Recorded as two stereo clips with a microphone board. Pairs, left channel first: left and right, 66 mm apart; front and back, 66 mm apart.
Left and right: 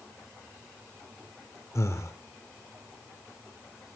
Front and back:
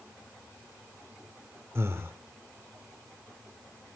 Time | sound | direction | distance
1.8 | breathing | 130° left | 1.8 m